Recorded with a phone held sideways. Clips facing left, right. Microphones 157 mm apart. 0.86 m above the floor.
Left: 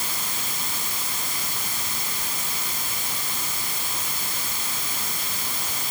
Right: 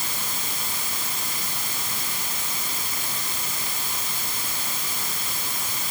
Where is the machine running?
I don't hear a machine running.